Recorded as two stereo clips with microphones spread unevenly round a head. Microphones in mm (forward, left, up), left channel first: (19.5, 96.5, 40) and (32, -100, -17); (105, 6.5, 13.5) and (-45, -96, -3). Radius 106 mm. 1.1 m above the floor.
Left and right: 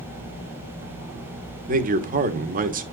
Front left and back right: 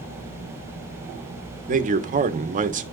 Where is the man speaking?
110° right, 1.3 m.